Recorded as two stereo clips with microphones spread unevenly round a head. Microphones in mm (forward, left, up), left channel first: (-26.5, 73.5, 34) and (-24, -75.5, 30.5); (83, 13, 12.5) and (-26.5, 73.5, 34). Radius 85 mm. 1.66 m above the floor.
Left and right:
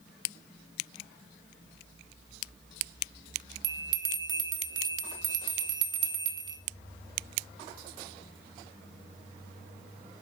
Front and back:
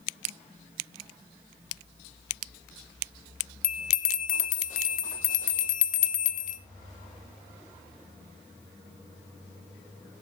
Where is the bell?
25° right, 1.0 m.